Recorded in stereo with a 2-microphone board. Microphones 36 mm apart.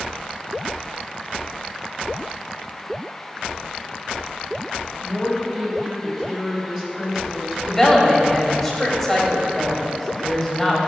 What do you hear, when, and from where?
5.0 s a woman speaking: 15° right (ahead or behind), 1.8 m
7.7 s a woman speaking: 10° left (ahead or behind), 1.5 m